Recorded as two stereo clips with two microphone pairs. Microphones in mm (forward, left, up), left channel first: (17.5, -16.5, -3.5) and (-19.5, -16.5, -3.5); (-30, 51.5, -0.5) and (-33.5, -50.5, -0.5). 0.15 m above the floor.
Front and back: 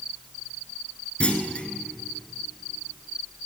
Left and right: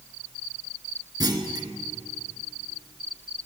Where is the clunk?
55° right, 1.1 m.